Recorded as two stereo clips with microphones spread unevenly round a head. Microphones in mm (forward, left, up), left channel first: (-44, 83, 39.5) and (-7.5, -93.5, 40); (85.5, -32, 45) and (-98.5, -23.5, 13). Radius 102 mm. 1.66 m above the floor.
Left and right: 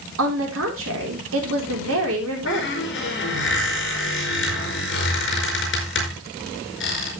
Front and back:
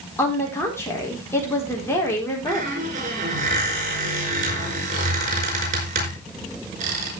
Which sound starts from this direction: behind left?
A squeak, at 2.5 s.